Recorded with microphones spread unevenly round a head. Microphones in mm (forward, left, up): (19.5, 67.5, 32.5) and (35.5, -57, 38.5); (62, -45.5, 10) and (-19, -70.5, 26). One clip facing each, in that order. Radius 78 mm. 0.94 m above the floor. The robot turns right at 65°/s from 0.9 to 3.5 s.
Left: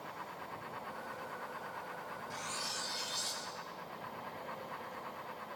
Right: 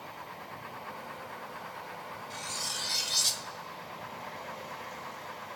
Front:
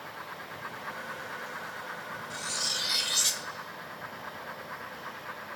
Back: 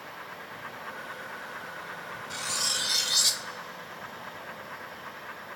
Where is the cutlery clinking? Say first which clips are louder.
Right 2 dB, back 2 dB; 155° right, 0.5 m; by 3.5 s 80° right, 0.5 m.